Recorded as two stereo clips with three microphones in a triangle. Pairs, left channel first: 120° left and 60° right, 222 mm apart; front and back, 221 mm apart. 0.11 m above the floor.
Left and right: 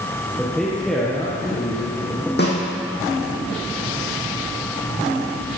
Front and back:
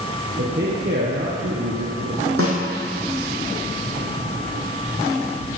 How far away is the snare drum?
About 4 m.